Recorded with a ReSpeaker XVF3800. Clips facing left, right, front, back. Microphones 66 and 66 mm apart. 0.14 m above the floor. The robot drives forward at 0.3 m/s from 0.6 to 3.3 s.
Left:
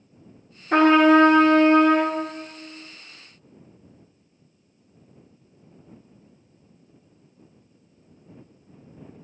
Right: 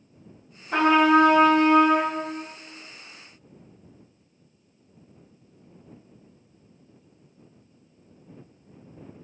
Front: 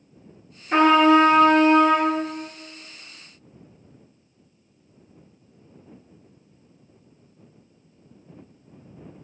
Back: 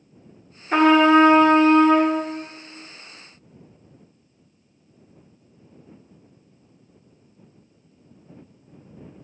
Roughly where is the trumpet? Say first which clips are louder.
Left 3 dB, back 1 dB; left.